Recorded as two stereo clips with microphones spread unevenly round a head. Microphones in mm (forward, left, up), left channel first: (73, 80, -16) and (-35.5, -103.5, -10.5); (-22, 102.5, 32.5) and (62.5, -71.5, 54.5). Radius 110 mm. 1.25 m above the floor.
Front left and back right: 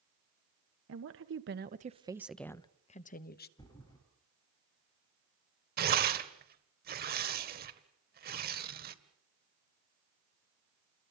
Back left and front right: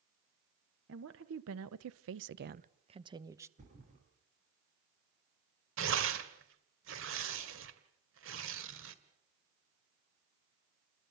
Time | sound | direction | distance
0.9 | a woman speaking | 100° right | 1.3 m
3.6 | a thud | 15° right | 7.5 m
5.8 | tearing paper | 80° right | 1.7 m